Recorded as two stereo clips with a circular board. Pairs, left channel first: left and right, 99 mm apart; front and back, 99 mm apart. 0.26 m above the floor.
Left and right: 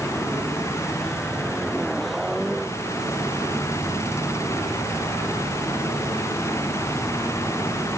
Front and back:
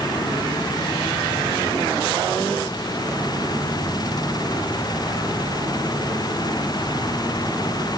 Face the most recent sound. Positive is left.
No sound to turn to.